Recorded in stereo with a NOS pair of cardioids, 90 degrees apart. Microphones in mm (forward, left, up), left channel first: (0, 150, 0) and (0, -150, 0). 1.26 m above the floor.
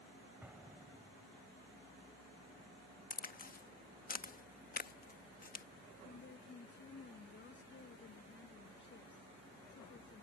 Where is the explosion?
5° right.